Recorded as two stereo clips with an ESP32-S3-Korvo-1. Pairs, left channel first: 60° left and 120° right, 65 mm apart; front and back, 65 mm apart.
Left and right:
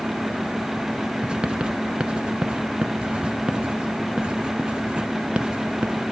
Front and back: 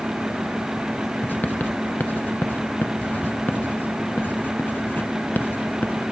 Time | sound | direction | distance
1.2 | writing | 50° right | 0.9 m